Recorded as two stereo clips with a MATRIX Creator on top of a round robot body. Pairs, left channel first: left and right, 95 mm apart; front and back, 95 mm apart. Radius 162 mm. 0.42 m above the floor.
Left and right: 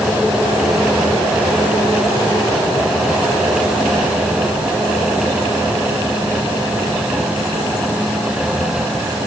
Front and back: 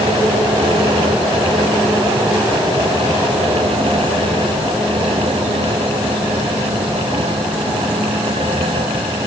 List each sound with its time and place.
Only background noise.